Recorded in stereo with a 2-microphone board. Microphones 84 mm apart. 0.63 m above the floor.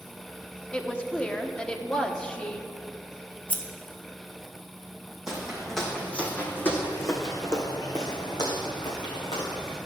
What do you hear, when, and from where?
0.7 s a woman speaking: 10° left (ahead or behind), 0.8 m
3.5 s scissors: 15° left (ahead or behind), 0.9 m
5.3 s footsteps: 5° right (ahead or behind), 1.6 m; by 9.8 s 70° left (ahead or behind), 3 m